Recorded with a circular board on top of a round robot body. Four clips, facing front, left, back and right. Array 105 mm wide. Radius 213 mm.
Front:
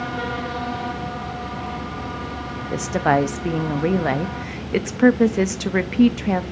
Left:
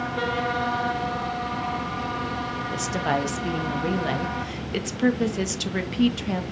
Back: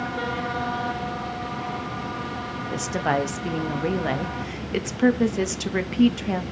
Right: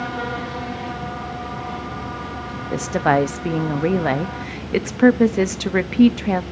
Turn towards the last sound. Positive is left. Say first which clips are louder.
# right 8 dB, front 5 dB
turn(degrees=-60)